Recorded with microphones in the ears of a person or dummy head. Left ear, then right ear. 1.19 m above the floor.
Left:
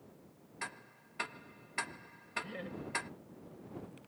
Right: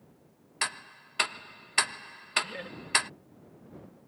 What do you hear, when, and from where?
0.6 s ticking: 55° right (ahead or behind)
2.4 s laughter: 30° right (ahead or behind)